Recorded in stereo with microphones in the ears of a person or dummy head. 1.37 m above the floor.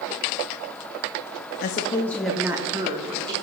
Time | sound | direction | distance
1.6 | a woman speaking | 55° left (ahead or behind) | 0.6 m